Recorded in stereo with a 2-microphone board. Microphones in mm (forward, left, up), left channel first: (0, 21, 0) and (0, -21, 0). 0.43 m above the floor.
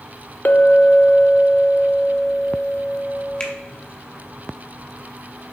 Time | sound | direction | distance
0.5 | a clink | 45° left (ahead or behind) | 0.5 m
3.4 | a finger snap | 25° left (ahead or behind) | 1.3 m